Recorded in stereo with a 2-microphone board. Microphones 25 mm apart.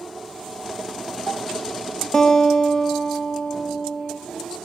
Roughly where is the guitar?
Left.